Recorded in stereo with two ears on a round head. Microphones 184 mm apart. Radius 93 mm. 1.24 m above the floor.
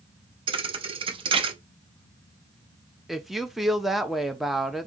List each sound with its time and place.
0.5 s a thud: 25° right (ahead or behind), 0.6 m
3.1 s a woman speaking: centre (ahead or behind), 0.6 m